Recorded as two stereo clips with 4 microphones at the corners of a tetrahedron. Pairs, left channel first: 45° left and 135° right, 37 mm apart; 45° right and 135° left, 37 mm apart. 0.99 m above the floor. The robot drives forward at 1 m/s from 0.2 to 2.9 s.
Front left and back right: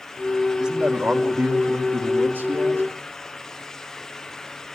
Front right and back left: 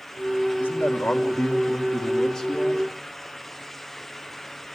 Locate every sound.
0.6 s a man speaking: 60° right, 1.9 m; by 2.8 s 130° right, 2 m